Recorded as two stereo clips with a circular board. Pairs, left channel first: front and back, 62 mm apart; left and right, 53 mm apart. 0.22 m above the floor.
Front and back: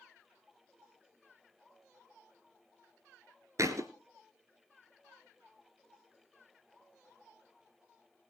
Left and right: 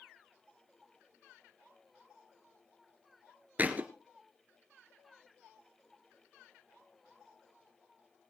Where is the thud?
150° right, 1.2 m.